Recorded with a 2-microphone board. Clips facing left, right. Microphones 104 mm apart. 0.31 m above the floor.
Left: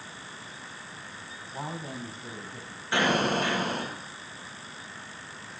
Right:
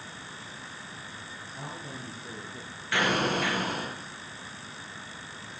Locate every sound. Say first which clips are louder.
1.5 s a woman speaking: left 5 dB; 55° left (ahead or behind), 2.5 m; by 2.8 s 60° left (ahead or behind), 3 m
2.9 s an explosion: left 2 dB; 25° left (ahead or behind), 4.5 m